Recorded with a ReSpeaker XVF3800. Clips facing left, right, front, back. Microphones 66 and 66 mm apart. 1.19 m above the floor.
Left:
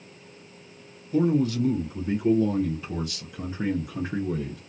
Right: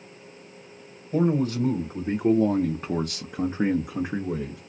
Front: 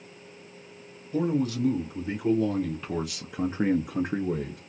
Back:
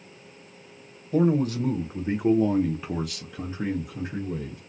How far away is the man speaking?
About 1.4 m.